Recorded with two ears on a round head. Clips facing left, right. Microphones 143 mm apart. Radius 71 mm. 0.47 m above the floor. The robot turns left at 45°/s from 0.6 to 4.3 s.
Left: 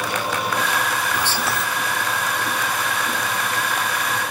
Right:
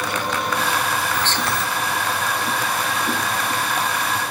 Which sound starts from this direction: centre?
Whispering, at 1.1 s.